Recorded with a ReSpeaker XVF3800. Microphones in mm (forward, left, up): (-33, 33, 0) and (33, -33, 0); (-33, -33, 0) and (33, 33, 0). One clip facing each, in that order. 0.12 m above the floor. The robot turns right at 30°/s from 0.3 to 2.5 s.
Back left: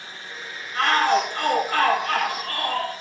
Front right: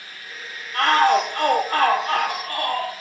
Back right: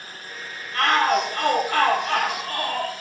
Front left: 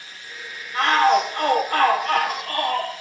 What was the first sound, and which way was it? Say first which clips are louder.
A shout: front right 3 dB, front left 3 dB; 30° right.